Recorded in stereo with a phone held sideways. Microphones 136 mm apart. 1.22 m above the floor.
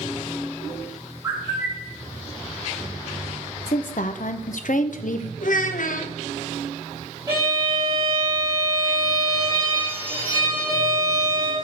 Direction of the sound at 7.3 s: 15° right (ahead or behind).